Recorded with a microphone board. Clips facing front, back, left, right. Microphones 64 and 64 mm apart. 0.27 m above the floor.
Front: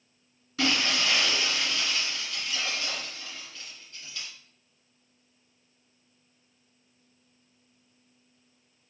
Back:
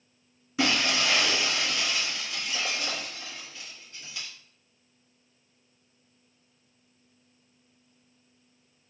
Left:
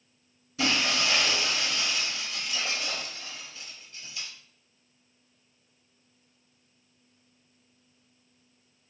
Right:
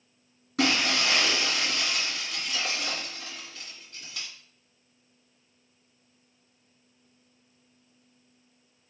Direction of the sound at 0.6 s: 110° right.